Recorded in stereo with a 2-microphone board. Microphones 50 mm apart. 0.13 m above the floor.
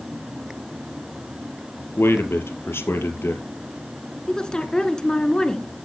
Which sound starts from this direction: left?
A man speaking, at 2.0 s.